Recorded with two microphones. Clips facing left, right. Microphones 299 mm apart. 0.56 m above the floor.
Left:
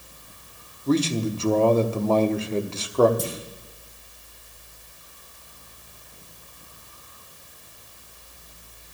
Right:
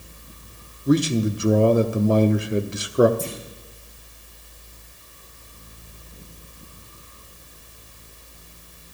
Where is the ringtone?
No ringtone in this recording.